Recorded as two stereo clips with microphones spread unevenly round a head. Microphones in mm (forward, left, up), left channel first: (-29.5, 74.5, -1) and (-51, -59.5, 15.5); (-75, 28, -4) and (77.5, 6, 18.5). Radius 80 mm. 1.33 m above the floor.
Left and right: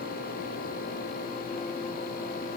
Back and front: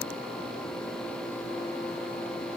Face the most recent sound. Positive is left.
No sound to turn to.